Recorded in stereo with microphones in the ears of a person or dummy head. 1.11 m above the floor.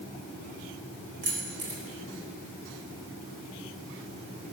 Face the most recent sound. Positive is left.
turn(degrees=-45)  # may be behind; listen again after turning